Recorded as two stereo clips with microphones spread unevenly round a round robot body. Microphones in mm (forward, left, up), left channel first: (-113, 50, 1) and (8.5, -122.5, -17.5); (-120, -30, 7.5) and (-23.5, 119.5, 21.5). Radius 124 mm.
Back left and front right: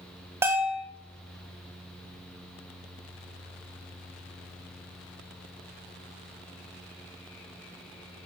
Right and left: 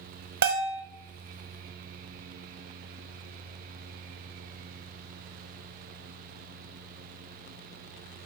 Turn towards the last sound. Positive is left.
turn(degrees=25)